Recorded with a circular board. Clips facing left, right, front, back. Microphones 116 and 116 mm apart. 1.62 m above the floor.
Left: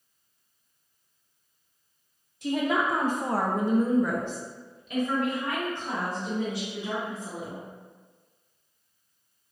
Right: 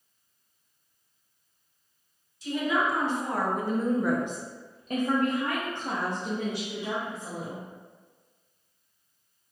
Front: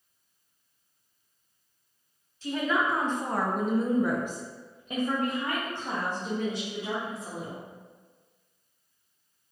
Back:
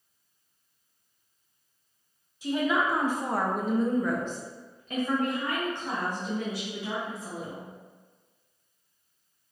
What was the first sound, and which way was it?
A woman speaking, 105° left.